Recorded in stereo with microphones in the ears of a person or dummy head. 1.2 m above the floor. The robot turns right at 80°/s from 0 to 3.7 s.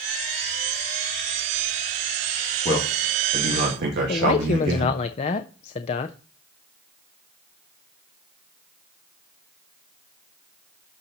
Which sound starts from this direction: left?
A man speaking, at 4.1 s.